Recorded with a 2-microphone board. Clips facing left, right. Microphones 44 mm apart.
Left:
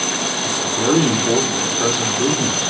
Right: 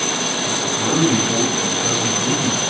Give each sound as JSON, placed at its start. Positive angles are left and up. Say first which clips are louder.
{"t": 0.4, "sound": "a man speaking", "louder": "left 4 dB", "side_deg": 60, "distance_m": 9.0}